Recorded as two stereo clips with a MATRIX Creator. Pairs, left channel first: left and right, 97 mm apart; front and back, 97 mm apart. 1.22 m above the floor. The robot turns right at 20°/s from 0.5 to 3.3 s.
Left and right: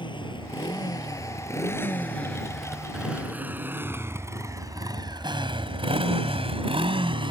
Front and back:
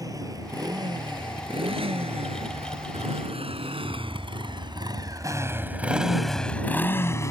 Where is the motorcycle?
125° left; by 7.3 s 60° right.